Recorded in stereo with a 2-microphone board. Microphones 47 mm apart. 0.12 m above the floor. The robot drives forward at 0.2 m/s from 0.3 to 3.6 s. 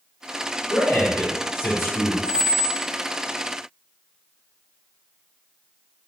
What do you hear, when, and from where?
0.7 s a man speaking: 40° left (ahead or behind), 1.4 m
2.2 s a squeak: 30° right (ahead or behind), 1.0 m; by 2.9 s 35° right (ahead or behind), 0.9 m